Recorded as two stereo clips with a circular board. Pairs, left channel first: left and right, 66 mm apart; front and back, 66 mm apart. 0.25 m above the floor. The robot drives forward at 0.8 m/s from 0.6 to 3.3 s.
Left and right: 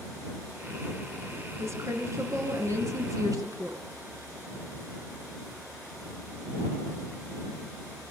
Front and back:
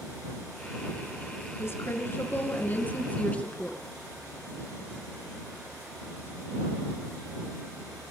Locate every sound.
1.6 s a woman speaking: 45° right, 4 m; by 3.8 s 65° right, 3.5 m